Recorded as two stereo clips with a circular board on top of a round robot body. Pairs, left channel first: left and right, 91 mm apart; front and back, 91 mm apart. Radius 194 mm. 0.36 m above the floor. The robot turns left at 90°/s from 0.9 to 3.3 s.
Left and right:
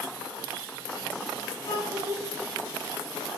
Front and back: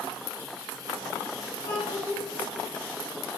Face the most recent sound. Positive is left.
turn(degrees=-85)